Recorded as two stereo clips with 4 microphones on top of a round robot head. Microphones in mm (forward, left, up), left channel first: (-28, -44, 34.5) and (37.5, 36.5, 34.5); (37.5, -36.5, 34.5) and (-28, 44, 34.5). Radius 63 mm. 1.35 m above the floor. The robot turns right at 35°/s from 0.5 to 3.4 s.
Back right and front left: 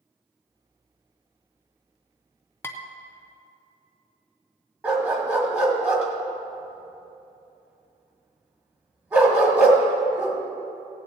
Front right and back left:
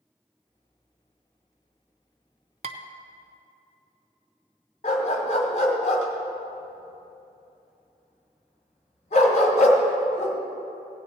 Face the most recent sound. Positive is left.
turn(degrees=-20)